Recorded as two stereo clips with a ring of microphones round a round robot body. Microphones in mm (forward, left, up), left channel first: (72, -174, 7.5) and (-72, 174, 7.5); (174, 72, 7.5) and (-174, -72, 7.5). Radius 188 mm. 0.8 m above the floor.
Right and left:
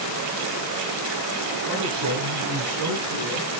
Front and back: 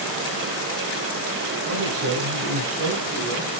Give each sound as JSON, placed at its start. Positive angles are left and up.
{"t": 1.6, "sound": "a man speaking", "azimuth_deg": 150, "distance_m": 10.0}